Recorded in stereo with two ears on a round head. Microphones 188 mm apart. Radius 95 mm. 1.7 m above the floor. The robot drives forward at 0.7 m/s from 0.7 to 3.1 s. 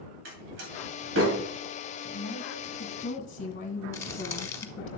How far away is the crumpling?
About 0.8 m.